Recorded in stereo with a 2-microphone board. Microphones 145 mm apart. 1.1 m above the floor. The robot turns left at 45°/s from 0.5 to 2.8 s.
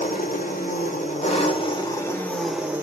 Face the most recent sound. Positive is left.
turn(degrees=-15)